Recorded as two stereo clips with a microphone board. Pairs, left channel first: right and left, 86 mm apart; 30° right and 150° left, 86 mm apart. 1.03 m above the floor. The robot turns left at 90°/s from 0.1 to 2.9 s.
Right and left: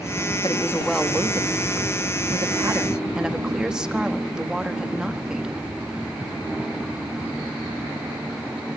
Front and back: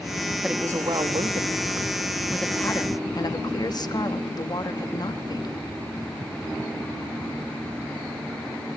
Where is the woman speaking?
125° right, 1.4 m; by 5.7 s 10° left, 1.4 m.